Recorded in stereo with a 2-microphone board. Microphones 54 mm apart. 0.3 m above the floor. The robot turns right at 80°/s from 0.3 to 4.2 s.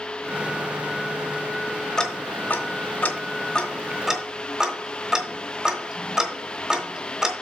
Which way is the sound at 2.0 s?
10° left (ahead or behind).